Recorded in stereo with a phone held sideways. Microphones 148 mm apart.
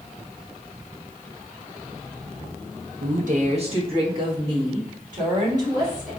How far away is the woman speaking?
About 0.6 m.